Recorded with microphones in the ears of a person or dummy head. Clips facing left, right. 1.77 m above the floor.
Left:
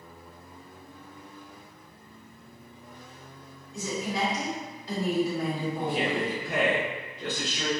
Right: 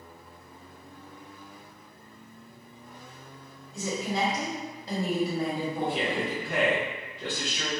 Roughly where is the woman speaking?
Right.